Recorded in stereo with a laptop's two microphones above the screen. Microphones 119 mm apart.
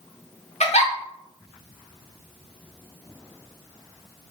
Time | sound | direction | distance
0.6 | a giggle | 70° left (ahead or behind) | 0.8 m